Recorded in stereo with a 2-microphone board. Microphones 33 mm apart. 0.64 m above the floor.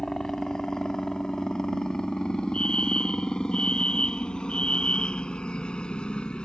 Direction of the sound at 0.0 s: 15° left (ahead or behind).